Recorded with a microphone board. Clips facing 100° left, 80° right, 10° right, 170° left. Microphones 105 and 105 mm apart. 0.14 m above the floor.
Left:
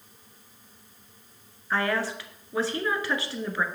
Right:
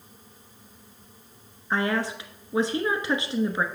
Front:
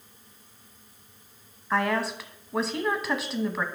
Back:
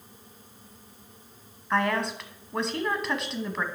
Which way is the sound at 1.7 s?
95° right.